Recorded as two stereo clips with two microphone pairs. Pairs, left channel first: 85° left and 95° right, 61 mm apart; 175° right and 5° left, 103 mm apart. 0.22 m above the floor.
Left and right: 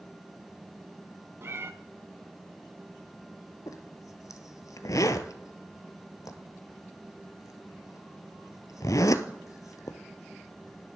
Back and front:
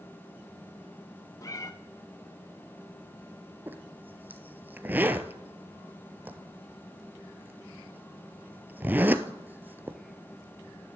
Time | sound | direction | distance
1.4 | a cat meowing | 130° right | 0.6 m
3.7 | a zipper | 75° left | 0.8 m